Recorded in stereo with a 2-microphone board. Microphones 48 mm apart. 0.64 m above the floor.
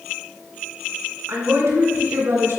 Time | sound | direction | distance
1.3 | a woman speaking | 80° right | 5.5 m